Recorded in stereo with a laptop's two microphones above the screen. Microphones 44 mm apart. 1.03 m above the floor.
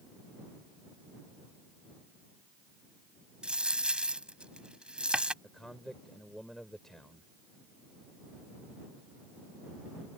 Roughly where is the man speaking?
Centre.